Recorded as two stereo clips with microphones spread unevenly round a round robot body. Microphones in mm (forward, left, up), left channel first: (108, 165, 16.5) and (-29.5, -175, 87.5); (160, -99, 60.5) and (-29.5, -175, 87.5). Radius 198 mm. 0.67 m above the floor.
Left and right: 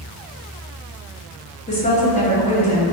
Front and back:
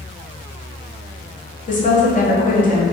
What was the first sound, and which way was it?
A woman speaking, 15° left.